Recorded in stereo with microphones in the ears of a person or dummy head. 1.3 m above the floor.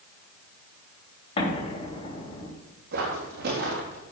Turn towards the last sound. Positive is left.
turn(degrees=-70)  # may be behind; listen again after turning